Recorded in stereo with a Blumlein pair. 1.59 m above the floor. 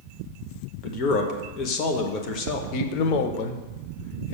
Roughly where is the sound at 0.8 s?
Ahead left.